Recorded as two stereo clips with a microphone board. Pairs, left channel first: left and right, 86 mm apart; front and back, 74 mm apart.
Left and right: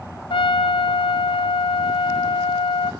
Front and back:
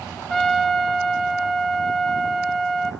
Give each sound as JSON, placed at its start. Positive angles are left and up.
{"t": 0.3, "sound": "a trumpet", "azimuth_deg": 90, "distance_m": 2.5}